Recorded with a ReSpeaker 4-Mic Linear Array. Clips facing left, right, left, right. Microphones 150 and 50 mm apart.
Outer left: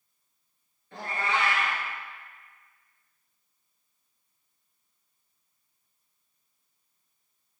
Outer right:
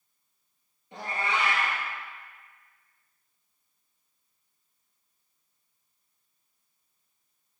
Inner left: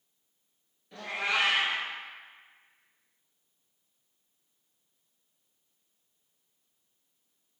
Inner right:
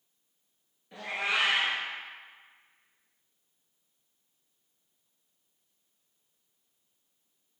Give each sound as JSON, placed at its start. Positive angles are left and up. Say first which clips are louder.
{"t": 0.9, "sound": "a cat meowing", "louder": "outer left 1 dB, even", "side_deg": -15, "distance_m": 1.2}